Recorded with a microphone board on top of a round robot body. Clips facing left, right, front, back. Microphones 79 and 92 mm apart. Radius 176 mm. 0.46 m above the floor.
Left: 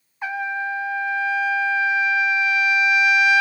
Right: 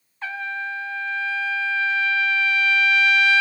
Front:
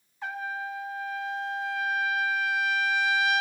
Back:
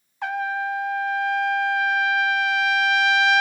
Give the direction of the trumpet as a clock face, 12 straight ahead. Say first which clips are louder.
Left 4 dB, back 8 dB; 7 o'clock.